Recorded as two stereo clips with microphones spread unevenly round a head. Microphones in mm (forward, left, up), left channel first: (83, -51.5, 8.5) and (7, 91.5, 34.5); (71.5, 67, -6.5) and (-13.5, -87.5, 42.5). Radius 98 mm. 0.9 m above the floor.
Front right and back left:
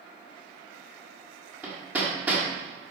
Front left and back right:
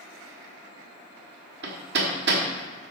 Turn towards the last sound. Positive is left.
turn(degrees=-160)